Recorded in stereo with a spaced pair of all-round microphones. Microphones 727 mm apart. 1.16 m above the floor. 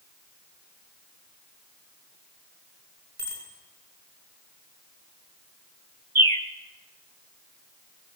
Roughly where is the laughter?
No laughter in this recording.